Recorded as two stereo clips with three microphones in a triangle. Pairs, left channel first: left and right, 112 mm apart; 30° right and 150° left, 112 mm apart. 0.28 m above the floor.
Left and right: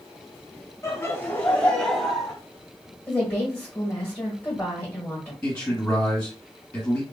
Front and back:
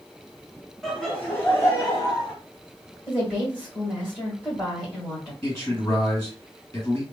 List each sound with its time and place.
0.8 s laughter: 55° left, 1.4 m; by 2.3 s 5° right, 1.7 m
3.1 s a woman speaking: 35° left, 1.2 m
5.4 s a man speaking: 20° left, 2 m